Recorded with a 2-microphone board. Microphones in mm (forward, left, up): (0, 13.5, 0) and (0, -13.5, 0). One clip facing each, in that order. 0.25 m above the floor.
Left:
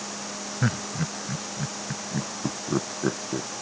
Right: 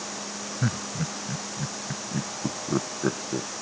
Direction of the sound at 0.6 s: 20° left (ahead or behind).